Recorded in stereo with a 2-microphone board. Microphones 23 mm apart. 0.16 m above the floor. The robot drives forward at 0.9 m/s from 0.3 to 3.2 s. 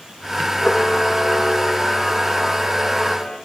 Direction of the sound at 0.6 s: 45° left (ahead or behind).